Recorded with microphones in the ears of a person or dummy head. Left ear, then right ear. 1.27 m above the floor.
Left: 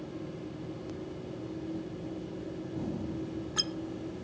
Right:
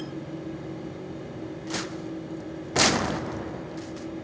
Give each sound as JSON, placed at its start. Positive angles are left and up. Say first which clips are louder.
{"t": 0.0, "sound": "a machine running", "louder": "right 5 dB", "side_deg": -40, "distance_m": 3.5}